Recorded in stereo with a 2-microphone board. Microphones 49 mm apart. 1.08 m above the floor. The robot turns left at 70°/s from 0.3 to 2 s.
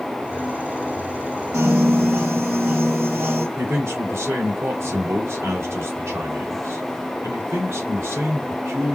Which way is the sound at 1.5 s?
85° right.